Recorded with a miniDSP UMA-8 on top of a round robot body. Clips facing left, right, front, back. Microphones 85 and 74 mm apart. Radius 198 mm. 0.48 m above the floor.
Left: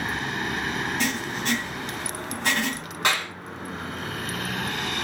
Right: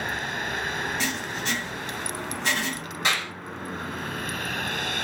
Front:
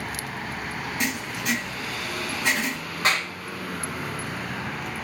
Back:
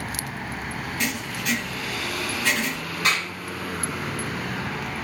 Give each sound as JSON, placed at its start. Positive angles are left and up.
{"t": 1.0, "sound": "writing", "azimuth_deg": 60, "distance_m": 1.8}
{"t": 3.0, "sound": "a clap", "azimuth_deg": 55, "distance_m": 2.5}